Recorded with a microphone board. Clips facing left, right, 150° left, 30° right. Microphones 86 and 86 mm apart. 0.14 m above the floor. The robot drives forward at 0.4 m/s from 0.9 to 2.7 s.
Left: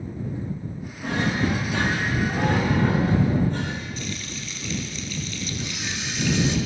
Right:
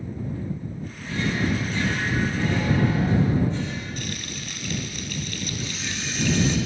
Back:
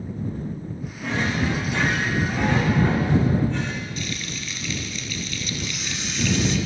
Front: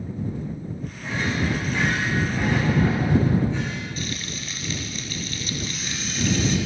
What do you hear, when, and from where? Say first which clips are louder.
1.0 s a drawer: left 2 dB, back 2 dB; 120° left, 6 m; by 3.9 s 125° left, 6.5 m
4.0 s frying: even, even; 80° right, 3 m
5.6 s a camera shutter: even, even; 165° left, 4.5 m